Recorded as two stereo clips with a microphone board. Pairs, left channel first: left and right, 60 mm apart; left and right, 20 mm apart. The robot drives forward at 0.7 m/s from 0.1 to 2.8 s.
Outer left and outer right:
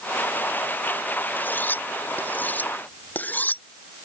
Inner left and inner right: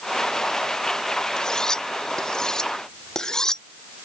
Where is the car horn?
I don't hear a car horn.